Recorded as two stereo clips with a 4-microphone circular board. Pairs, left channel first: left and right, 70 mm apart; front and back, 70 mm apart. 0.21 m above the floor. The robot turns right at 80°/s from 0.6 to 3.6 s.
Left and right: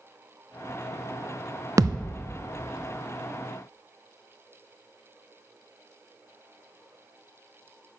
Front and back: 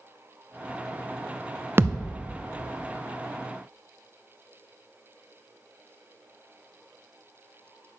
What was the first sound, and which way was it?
A thud, 125° right.